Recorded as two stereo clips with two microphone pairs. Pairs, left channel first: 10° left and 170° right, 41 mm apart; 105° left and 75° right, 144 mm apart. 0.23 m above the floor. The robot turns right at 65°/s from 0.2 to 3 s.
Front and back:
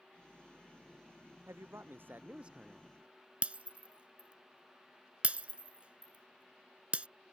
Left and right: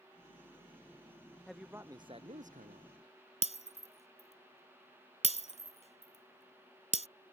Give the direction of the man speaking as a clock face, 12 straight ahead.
6 o'clock.